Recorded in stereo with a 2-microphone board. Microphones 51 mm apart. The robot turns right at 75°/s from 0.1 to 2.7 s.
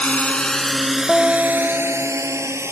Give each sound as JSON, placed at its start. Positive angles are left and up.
{"t": 0.0, "sound": "a drone", "side_deg": 25}
{"t": 1.1, "sound": "a guitar", "side_deg": 0}